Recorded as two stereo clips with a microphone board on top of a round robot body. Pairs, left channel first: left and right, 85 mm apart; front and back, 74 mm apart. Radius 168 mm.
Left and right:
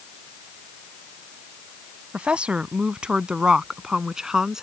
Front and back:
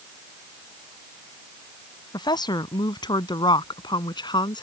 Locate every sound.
2.1 s a woman speaking: 15° right; by 4.6 s 5° right